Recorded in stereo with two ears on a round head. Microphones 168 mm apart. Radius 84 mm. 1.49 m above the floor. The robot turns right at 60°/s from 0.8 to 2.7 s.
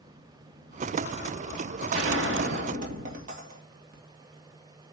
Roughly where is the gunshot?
Right.